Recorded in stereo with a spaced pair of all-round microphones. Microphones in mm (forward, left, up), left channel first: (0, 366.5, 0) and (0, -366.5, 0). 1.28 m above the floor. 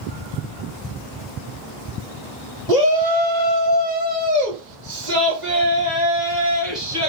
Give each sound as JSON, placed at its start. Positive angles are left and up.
{"t": 2.7, "sound": "a shout", "side_deg": -65, "distance_m": 2.0}